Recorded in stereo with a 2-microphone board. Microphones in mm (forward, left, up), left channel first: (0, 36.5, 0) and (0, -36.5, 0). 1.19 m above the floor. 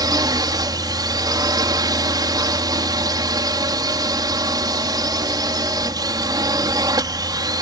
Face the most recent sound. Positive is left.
turn(degrees=-65)  # may be behind; listen again after turning